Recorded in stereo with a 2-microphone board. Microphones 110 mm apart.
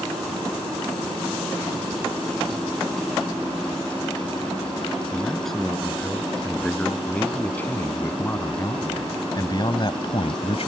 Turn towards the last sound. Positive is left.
turn(degrees=65)  # may be behind; listen again after turning